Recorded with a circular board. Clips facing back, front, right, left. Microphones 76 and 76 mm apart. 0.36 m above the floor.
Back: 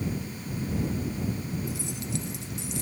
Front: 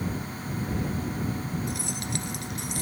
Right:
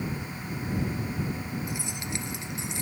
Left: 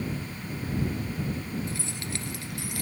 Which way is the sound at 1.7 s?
15° right.